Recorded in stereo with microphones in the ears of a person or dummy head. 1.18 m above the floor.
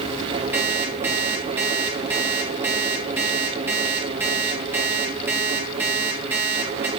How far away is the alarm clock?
About 3.5 m.